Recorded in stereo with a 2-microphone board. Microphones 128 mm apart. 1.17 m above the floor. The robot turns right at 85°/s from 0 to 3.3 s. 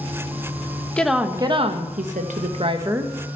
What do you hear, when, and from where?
1.0 s a woman speaking: 170° left, 1.1 m; by 3.1 s 5° right, 1.1 m